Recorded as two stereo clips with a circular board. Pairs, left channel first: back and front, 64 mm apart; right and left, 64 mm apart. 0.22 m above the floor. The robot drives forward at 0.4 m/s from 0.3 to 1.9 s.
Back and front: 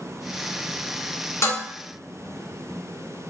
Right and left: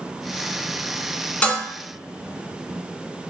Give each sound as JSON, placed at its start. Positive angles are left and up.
{"t": 1.4, "sound": "dishes clattering", "azimuth_deg": -155, "distance_m": 1.2}